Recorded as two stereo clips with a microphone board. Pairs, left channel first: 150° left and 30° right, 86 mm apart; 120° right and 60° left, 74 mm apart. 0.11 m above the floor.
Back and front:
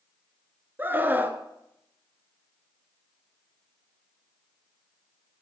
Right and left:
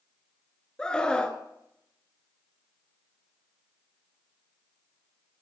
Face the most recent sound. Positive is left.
turn(degrees=-55)